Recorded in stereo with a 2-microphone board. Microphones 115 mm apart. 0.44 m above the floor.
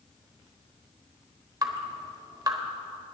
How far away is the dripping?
About 1.2 m.